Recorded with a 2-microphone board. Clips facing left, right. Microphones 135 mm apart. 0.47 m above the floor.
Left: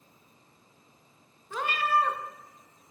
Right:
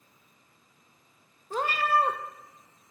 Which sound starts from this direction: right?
A cat meowing, at 1.5 s.